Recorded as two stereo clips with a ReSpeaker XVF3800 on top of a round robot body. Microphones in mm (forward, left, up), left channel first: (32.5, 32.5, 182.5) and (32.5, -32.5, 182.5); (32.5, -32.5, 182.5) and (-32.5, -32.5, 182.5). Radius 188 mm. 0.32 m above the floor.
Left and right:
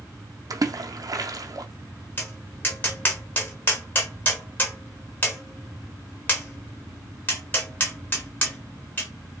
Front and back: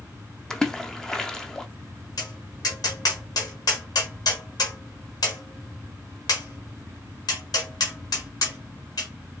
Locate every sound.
0.5 s a splash: 80° right, 0.6 m
2.2 s tapping: 30° left, 1.0 m